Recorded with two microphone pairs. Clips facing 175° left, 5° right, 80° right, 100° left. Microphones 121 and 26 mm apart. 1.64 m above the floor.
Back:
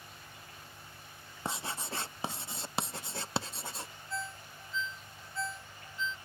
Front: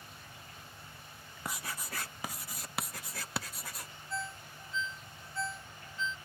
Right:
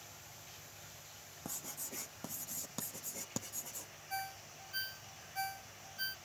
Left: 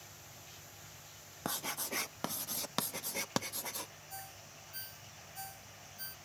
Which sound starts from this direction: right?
A ringtone, at 4.1 s.